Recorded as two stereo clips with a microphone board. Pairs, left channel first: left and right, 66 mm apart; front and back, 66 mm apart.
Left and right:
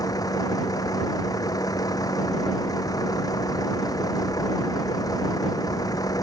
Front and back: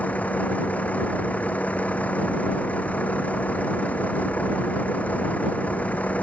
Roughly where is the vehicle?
Ahead left.